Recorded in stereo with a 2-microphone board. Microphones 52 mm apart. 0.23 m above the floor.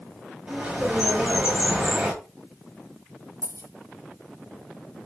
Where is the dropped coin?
85° right, 1.3 m.